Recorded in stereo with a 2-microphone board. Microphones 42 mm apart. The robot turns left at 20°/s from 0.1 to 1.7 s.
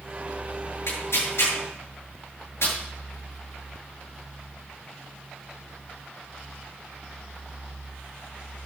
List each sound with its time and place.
0.9 s tearing paper: 80° left, 7.5 m; by 2.7 s 70° left (ahead or behind), 7.5 m